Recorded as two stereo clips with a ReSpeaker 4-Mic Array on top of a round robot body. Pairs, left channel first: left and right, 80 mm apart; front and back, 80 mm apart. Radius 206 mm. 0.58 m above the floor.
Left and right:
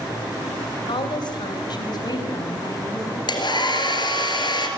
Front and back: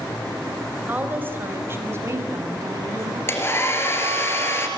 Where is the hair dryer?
60° left, 3.5 m.